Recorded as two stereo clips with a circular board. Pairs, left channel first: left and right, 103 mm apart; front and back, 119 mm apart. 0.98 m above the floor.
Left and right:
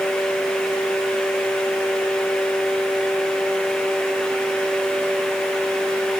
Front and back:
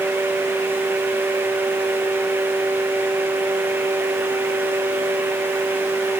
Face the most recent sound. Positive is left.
No sound to turn to.